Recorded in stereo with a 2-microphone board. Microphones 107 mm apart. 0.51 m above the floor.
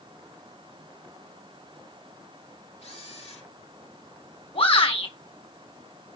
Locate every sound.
2.8 s a camera shutter: 85° left, 4 m
4.5 s a shout: 65° left (ahead or behind), 4 m